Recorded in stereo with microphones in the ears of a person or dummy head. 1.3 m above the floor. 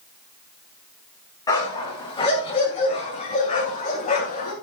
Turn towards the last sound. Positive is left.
turn(degrees=40)  # may be behind; listen again after turning